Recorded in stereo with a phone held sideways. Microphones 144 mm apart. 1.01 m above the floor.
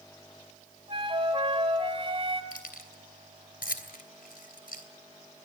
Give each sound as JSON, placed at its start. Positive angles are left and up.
{"t": 0.9, "sound": "a flute", "side_deg": -40, "distance_m": 2.5}
{"t": 2.5, "sound": "keys jangling", "side_deg": 85, "distance_m": 3.0}